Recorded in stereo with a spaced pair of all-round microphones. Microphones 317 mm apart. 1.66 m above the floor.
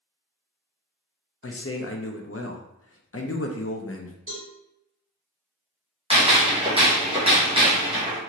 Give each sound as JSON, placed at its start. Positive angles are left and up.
{"t": 1.4, "sound": "a man speaking", "side_deg": 45, "distance_m": 0.5}
{"t": 4.3, "sound": "a cowbell", "side_deg": -40, "distance_m": 1.2}
{"t": 6.1, "sound": "a gunshot", "side_deg": -15, "distance_m": 0.9}